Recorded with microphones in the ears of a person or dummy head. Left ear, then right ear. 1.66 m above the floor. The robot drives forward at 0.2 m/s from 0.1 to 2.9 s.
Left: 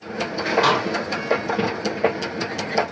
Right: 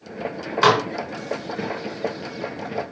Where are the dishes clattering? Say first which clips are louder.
Right 4 dB; 40° right (ahead or behind), 1.3 m.